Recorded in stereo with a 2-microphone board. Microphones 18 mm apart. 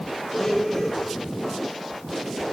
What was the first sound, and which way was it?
A blender, 15° left (ahead or behind).